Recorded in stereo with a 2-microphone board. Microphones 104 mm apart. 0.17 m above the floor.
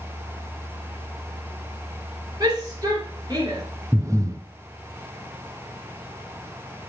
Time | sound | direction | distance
2.4 | a shout | 40° right (ahead or behind) | 3 m
3.9 | breathing | 30° right (ahead or behind) | 0.7 m